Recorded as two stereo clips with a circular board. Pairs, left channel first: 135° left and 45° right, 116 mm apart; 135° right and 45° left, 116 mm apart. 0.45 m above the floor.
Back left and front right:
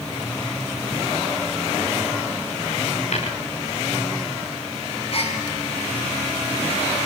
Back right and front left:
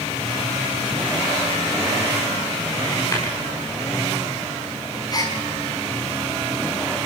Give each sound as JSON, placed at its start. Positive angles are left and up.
{"t": 3.1, "sound": "tapping", "azimuth_deg": 160, "distance_m": 9.0}
{"t": 5.1, "sound": "a gasp", "azimuth_deg": 170, "distance_m": 5.0}